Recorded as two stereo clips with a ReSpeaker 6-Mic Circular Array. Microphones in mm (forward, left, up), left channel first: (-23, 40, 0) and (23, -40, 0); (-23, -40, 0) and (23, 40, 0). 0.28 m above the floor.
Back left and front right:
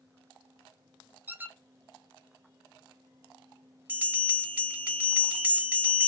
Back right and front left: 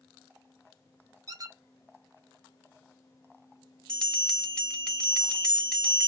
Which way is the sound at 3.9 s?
70° right.